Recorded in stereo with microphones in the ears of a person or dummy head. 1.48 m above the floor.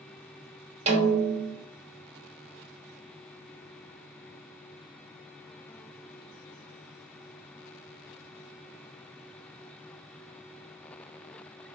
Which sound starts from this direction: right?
A snare drum, at 0.9 s.